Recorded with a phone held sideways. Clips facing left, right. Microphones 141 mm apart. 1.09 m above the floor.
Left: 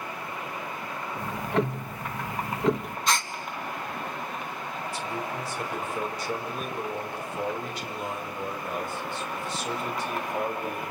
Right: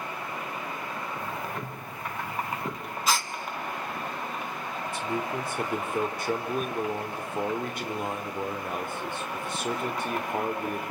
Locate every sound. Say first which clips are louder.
1.2 s ticking: left 7 dB; 75° left (ahead or behind), 0.9 m
3.1 s a gasp: even; 5° right (ahead or behind), 1.0 m
4.9 s a man speaking: right 3 dB; 50° right (ahead or behind), 4 m